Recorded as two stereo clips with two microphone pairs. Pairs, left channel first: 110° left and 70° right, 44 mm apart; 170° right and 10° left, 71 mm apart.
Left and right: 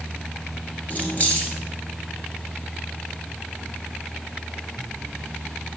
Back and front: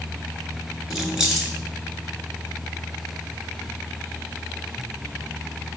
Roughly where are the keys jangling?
Left.